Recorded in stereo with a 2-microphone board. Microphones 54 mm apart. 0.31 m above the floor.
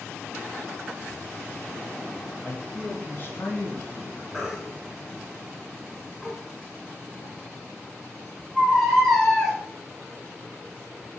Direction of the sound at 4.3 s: Centre (ahead or behind).